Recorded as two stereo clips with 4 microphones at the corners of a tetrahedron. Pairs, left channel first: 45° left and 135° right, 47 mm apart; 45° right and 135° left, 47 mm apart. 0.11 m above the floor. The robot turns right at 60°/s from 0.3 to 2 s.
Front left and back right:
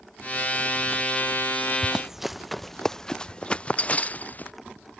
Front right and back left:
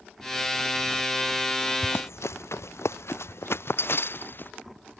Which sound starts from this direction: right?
Running footsteps, at 1.8 s.